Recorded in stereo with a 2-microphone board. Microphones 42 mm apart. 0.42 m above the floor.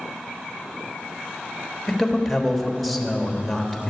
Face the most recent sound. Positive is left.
turn(degrees=0)  # may be behind; listen again after turning